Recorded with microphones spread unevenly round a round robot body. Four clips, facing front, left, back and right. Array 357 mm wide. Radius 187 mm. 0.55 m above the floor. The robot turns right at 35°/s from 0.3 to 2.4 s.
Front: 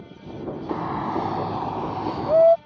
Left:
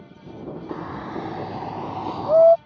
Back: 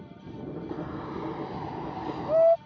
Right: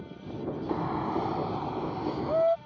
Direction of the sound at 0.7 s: 10° right.